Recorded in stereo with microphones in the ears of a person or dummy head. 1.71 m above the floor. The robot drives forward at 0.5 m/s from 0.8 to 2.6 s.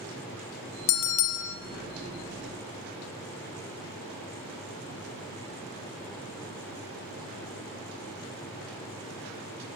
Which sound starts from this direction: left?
A bell, at 0.9 s.